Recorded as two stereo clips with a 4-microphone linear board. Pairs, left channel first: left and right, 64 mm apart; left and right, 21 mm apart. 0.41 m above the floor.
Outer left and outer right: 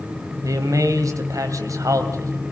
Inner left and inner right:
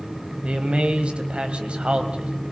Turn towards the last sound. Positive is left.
turn(degrees=-60)  # may be behind; listen again after turning